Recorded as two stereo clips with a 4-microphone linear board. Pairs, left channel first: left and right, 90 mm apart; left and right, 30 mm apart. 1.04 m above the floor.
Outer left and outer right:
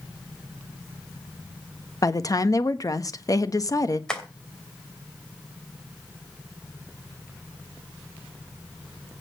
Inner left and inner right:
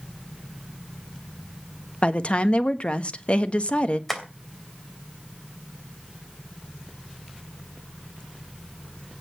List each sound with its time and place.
2.0 s a woman speaking: 40° left (ahead or behind), 1.3 m
4.1 s tapping: 10° left (ahead or behind), 2.5 m